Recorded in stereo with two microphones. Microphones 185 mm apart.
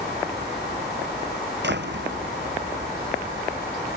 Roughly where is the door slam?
Right.